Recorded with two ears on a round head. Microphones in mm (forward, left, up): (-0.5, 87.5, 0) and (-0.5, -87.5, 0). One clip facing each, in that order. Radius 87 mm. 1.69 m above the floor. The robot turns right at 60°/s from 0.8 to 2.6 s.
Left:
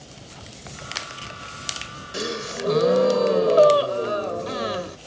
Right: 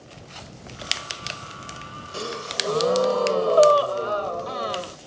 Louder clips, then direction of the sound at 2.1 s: Left 3 dB; 20° left (ahead or behind).